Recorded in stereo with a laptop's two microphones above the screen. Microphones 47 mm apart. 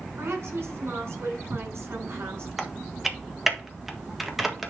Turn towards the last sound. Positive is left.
turn(degrees=-5)  # may be behind; listen again after turning